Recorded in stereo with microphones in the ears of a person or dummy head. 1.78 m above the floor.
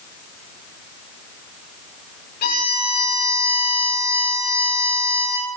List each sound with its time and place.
2.4 s a violin: 55° left (ahead or behind), 9 m